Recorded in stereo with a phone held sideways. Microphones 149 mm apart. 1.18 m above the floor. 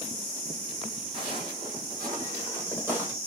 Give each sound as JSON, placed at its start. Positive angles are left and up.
{"t": 1.1, "sound": "footsteps", "side_deg": -35, "distance_m": 2.5}